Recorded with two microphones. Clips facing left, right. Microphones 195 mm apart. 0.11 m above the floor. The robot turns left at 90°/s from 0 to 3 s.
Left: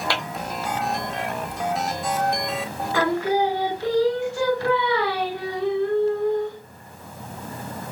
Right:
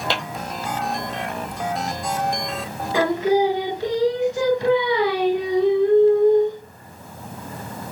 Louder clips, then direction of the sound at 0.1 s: Right 3 dB; 20° right (ahead or behind).